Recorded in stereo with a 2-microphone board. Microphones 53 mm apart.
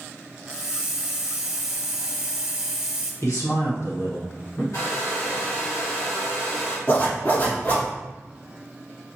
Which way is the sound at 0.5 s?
15° right (ahead or behind).